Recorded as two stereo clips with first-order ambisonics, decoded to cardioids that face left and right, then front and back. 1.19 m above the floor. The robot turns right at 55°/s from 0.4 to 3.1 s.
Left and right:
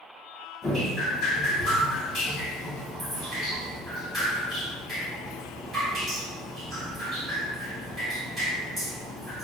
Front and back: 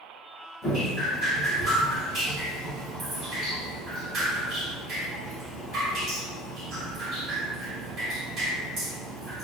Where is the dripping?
45° left, 1.1 m; by 9.4 s straight behind, 1.1 m.